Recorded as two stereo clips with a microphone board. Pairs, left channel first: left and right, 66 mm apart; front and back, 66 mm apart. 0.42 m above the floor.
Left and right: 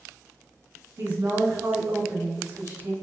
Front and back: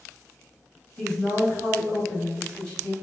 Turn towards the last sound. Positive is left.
turn(degrees=-75)